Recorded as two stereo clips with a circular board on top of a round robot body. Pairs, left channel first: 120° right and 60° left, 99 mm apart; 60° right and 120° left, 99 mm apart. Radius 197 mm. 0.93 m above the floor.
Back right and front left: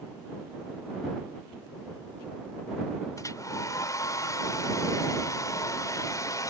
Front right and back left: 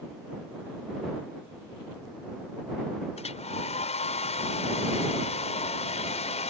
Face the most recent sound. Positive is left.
turn(degrees=-60)